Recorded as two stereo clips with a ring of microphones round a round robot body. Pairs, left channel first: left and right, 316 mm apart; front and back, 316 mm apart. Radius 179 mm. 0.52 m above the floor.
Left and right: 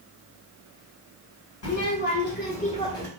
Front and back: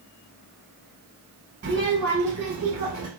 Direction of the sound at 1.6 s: 125° left.